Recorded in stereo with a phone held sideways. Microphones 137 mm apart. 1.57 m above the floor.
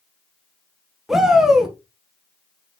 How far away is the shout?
About 1.6 m.